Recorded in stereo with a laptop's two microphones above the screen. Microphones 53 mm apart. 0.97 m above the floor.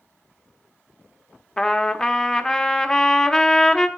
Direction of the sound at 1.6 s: 15° left (ahead or behind).